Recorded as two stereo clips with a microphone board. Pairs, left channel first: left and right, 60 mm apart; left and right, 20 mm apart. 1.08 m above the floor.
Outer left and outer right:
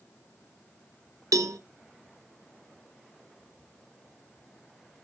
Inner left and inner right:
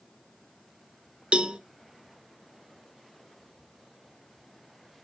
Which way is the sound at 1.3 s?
70° right (ahead or behind).